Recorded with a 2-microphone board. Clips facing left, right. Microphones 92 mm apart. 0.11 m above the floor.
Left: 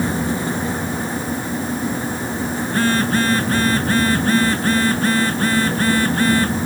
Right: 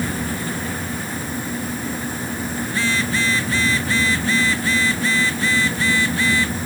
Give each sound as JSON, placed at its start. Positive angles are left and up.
{"t": 2.7, "sound": "a phone buzzing", "side_deg": 50}